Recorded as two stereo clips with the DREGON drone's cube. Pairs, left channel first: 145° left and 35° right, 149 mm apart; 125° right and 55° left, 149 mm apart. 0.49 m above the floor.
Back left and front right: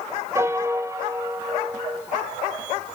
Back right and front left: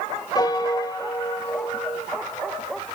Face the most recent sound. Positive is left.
turn(degrees=-90)